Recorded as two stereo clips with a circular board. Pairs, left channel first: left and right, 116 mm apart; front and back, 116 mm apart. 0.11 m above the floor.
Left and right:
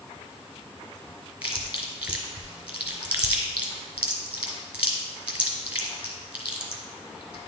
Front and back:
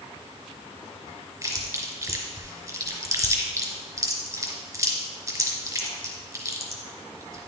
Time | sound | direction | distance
1.4 | chewing | 155° right | 1.4 m